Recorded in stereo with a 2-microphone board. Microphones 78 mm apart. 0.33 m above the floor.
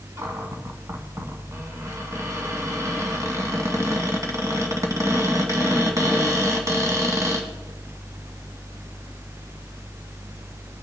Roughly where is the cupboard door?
Right.